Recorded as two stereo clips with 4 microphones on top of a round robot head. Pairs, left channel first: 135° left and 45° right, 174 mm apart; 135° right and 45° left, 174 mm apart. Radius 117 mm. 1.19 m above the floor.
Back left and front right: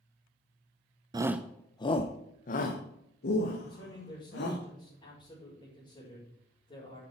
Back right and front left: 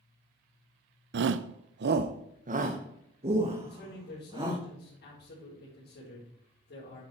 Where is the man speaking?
165° right, 5 m.